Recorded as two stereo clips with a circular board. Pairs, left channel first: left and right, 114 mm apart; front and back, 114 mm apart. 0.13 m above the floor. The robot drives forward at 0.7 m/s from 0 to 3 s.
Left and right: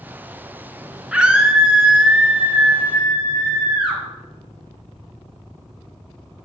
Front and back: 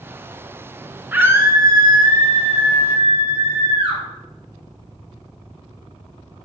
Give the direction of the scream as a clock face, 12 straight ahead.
5 o'clock.